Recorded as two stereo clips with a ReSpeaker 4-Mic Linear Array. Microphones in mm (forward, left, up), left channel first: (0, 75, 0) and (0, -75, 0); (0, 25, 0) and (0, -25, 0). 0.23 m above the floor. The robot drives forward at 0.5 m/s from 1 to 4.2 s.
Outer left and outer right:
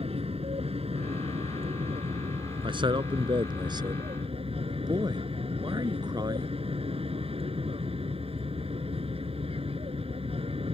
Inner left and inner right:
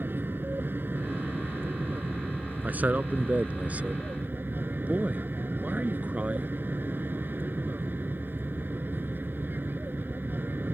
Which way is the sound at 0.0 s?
45° right (ahead or behind).